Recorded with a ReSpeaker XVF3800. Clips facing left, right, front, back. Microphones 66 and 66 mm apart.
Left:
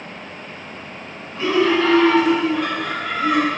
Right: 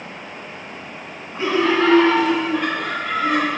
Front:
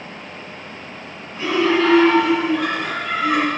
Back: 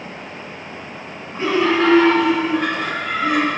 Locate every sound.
1.4 s laughter: 145° right, 2.5 m; by 3.5 s 125° right, 5 m